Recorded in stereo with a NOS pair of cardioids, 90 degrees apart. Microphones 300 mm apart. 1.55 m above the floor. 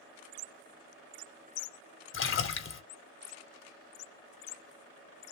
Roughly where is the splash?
Ahead left.